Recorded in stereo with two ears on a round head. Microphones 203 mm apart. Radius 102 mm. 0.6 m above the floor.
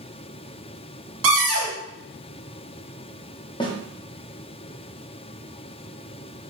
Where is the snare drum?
20° left (ahead or behind), 0.6 m.